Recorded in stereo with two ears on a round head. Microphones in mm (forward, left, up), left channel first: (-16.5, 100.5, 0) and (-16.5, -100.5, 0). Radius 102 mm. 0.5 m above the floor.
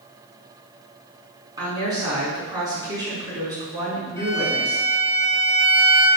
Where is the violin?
15° left (ahead or behind), 3 m.